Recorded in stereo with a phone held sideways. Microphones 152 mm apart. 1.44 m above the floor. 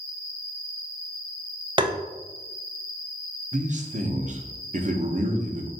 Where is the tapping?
30° right (ahead or behind), 0.6 m.